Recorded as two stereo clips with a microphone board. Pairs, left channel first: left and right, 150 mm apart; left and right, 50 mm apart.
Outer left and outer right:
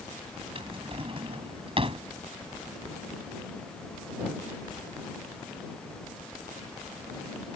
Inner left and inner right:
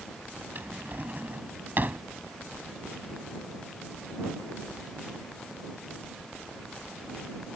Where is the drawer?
40° right (ahead or behind).